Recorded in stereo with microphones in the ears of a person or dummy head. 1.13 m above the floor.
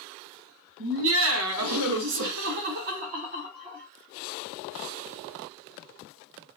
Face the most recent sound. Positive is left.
turn(degrees=-25)  # may be behind; listen again after turning